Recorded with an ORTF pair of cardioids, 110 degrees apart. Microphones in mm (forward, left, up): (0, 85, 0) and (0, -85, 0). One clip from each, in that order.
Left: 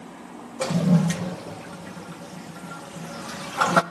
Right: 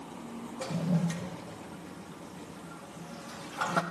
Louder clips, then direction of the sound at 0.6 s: Left 10 dB; 55° left.